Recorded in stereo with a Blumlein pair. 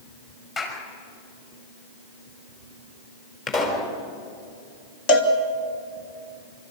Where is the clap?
25° left, 6 m.